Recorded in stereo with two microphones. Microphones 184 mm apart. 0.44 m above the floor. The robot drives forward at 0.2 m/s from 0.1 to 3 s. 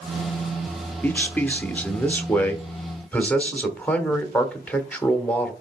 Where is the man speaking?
10° left (ahead or behind), 0.9 m.